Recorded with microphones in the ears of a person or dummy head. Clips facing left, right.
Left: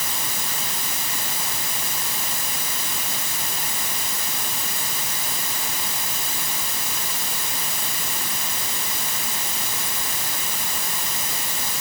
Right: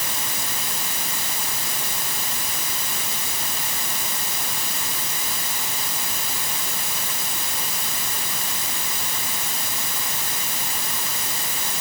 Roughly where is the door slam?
I don't hear a door slam.